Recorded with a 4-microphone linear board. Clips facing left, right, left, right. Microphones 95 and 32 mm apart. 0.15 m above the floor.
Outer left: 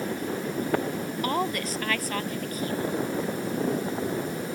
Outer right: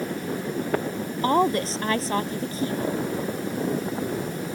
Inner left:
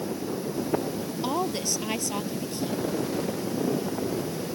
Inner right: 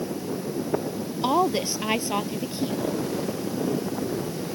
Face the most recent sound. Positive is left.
turn(degrees=-25)  # may be behind; listen again after turning